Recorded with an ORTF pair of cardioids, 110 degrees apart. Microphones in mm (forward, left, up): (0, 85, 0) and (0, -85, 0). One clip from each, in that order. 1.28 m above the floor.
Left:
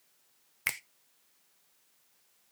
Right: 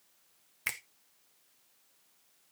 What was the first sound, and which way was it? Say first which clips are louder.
A finger snap: left 2 dB; 15° left.